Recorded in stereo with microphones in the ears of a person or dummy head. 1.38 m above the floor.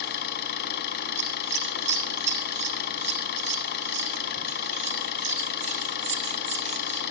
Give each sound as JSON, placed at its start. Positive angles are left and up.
{"t": 0.0, "sound": "an engine running", "side_deg": 55, "distance_m": 5.0}
{"t": 1.2, "sound": "scissors", "side_deg": -35, "distance_m": 4.0}